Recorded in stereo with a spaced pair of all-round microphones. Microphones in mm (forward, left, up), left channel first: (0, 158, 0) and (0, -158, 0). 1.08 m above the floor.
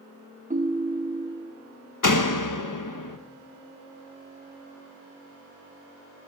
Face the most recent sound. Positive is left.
turn(degrees=75)  # may be behind; listen again after turning